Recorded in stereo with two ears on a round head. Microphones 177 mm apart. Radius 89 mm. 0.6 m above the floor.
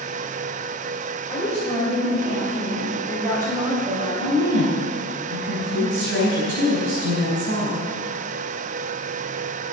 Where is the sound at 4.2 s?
75° right (ahead or behind), 3.5 m.